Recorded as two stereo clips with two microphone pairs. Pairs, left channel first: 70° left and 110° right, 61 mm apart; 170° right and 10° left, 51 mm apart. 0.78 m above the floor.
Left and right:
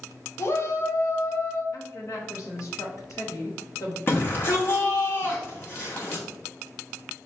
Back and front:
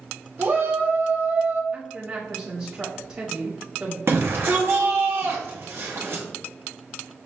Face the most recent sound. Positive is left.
turn(degrees=20)